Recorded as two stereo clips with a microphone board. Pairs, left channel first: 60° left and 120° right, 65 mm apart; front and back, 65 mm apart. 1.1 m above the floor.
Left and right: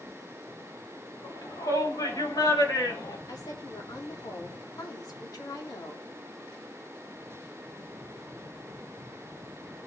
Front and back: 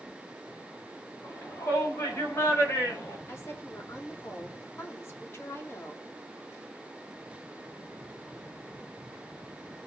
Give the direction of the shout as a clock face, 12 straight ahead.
10 o'clock.